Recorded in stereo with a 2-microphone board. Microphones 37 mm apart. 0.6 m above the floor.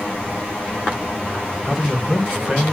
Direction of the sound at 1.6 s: 20° right (ahead or behind).